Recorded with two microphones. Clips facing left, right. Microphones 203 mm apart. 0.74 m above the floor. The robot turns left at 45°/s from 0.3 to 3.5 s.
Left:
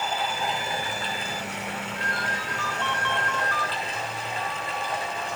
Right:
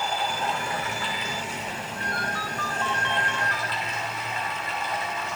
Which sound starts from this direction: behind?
Running water, at 0.0 s.